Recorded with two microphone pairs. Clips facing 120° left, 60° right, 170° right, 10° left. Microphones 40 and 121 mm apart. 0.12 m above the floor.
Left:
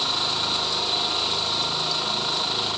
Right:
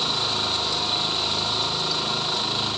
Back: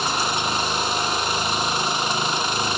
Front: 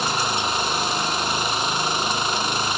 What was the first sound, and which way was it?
Only background noise.